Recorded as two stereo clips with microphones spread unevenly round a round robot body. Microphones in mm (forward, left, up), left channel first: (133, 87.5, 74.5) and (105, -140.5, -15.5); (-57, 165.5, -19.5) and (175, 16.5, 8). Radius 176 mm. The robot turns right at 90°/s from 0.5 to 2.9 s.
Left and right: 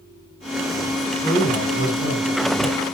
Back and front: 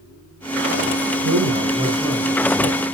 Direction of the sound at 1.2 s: 10° right.